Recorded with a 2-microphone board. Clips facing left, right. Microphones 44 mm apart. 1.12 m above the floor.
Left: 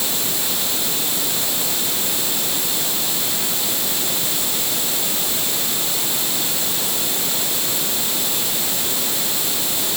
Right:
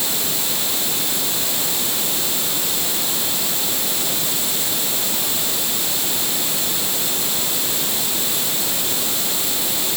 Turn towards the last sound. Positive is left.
No sound to turn to.